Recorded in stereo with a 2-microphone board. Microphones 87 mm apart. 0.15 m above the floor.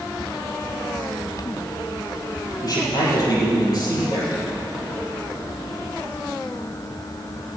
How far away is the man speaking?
About 6 m.